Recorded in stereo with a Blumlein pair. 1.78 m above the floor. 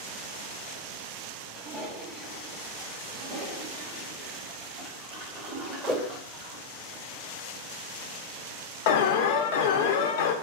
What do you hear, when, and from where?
1.5 s a toilet flushing: straight ahead, 1.2 m
3.1 s a toilet flushing: 35° right, 2 m
5.9 s a whoosh: straight ahead, 1.0 m
8.9 s an alarm: 50° left, 0.6 m